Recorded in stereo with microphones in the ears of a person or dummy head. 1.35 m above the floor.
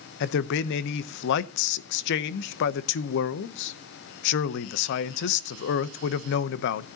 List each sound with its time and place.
0.2 s a man speaking: 70° left (ahead or behind), 0.8 m